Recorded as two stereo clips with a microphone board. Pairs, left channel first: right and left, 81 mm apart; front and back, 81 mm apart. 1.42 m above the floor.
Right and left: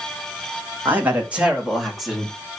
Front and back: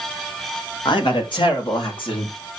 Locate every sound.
0.8 s a man speaking: 25° left, 3 m; by 2.6 s 10° right, 4.5 m